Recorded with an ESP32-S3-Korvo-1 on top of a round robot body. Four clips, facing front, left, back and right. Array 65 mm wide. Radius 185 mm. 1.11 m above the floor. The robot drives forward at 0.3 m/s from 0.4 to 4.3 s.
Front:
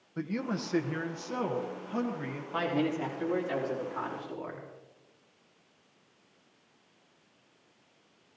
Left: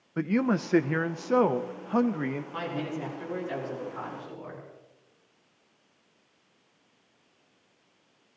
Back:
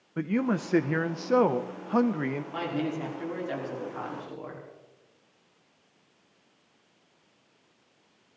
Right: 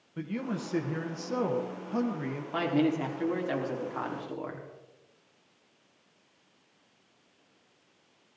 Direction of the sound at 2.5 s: 85° right.